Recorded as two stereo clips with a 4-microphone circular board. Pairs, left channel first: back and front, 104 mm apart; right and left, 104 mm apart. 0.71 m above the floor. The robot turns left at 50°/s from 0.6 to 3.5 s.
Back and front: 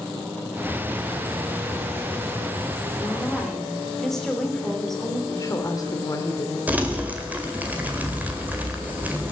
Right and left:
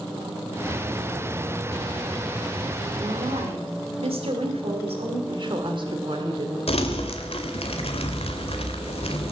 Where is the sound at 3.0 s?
120° left, 2.5 m; by 5.2 s 95° left, 2.5 m.